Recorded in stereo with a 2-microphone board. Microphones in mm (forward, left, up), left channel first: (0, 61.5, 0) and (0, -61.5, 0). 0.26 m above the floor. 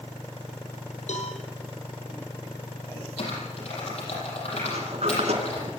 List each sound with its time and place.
1.1 s a cowbell: 75° left (ahead or behind), 3.5 m
3.2 s typing on a keyboard: 65° left (ahead or behind), 8 m
4.6 s a sliding door: 65° right (ahead or behind), 3.5 m